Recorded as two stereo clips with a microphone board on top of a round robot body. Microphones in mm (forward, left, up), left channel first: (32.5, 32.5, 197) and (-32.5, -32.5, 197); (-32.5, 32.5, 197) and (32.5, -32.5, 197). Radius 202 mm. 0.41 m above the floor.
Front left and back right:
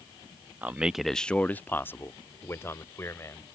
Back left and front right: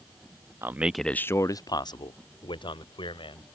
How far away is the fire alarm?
No fire alarm in this recording.